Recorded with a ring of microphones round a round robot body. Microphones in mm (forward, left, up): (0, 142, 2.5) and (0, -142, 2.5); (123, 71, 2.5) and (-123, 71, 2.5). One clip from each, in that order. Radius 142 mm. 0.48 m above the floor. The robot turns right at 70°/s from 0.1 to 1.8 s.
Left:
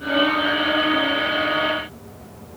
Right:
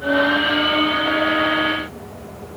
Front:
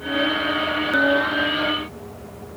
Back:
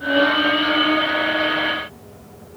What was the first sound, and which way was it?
Only background noise.